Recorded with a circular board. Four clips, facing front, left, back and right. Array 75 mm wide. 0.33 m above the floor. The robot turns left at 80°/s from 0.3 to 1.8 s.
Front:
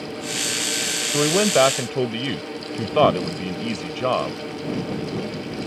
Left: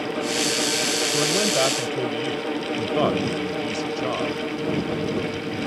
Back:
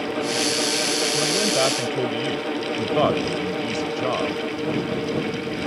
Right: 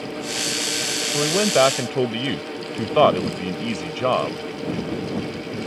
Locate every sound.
1.1 s a man speaking: 5° right; by 4.4 s 60° right